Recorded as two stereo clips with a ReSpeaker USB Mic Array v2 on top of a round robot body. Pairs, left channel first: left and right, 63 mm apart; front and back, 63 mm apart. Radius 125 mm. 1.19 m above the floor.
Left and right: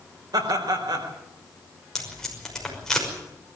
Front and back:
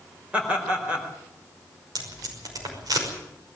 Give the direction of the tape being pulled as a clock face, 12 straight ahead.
6 o'clock.